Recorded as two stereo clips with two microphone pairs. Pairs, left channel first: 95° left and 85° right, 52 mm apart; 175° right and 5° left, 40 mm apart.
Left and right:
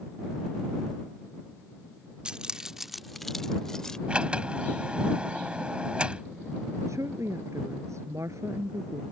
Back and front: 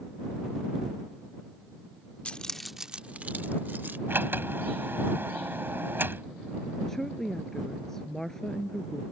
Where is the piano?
No piano in this recording.